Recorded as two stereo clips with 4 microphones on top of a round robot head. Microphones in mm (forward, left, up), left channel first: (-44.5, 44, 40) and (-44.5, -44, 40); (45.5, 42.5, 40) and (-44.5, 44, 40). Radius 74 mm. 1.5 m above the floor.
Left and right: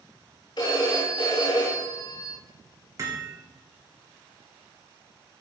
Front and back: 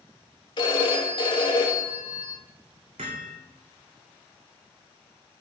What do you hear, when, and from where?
0.6 s a phone ringing: 30° left, 2 m
3.0 s hammering: 140° right, 2 m